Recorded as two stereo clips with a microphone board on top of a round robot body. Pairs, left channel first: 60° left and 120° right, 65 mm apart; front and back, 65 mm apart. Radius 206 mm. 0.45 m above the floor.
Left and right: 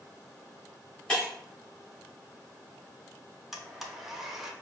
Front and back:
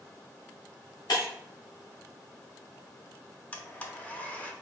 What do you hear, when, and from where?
1.1 s breaking glass: 20° right, 2.5 m
3.5 s a blender: 40° right, 1.1 m